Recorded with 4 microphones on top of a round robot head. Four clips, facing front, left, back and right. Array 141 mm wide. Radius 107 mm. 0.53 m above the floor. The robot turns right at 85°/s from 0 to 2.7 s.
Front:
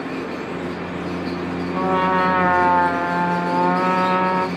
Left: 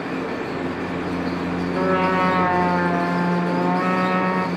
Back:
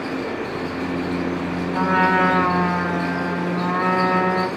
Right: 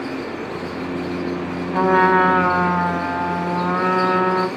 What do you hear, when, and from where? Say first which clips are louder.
1.7 s a trumpet: right 6 dB, back 1 dB; 95° right, 1.8 m; by 4.5 s 10° right, 1.8 m